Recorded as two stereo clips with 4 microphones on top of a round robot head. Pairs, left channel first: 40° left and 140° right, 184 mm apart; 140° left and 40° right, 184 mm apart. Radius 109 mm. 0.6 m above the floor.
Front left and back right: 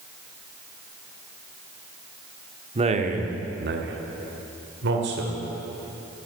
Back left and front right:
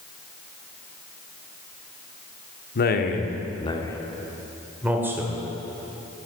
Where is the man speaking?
160° left, 1.2 m; by 5.3 s 115° right, 2 m.